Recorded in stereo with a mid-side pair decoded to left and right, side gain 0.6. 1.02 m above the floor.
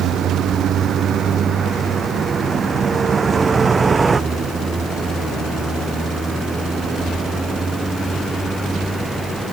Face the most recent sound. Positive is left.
turn(degrees=0)